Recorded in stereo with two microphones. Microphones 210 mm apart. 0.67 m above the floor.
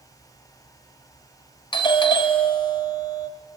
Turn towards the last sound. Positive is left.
turn(degrees=20)  # may be behind; listen again after turning